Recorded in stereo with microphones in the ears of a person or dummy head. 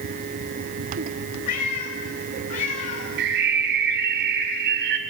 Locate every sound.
1.5 s a cat meowing: 55° left (ahead or behind), 3.5 m; by 3.1 s 50° left (ahead or behind), 4 m
3.2 s a bird: 60° right (ahead or behind), 1.8 m